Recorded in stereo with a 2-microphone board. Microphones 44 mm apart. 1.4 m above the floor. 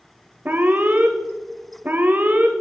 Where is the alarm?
45° right (ahead or behind), 0.6 m.